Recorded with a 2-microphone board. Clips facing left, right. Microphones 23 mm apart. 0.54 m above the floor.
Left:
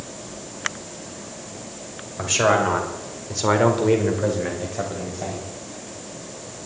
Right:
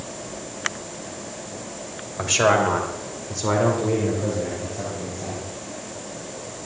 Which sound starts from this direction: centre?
A man speaking, at 2.2 s.